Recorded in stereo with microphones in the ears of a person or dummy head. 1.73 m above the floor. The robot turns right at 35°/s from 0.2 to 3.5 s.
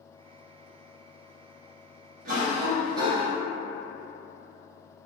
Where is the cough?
50° right, 1.1 m; by 3.3 s 15° right, 1.1 m.